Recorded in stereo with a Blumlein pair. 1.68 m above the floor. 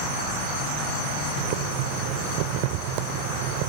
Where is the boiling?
45° right.